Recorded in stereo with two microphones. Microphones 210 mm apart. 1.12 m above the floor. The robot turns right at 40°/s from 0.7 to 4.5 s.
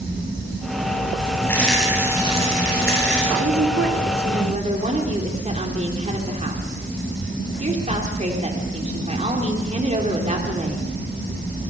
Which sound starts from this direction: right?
A woman speaking, at 3.4 s.